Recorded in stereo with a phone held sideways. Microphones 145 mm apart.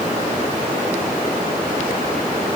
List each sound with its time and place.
Only background noise.